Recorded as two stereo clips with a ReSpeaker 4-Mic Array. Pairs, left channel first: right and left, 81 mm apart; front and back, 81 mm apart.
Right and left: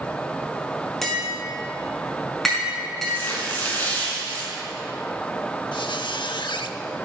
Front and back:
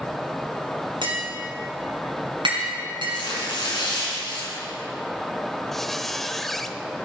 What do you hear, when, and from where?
1.0 s tapping: 175° right, 5 m
3.1 s tearing paper: 25° right, 4.5 m
5.7 s a squeak: 85° right, 0.6 m